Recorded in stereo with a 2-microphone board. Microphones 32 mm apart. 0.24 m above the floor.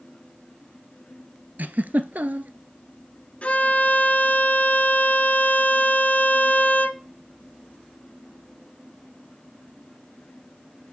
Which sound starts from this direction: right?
A giggle, at 1.6 s.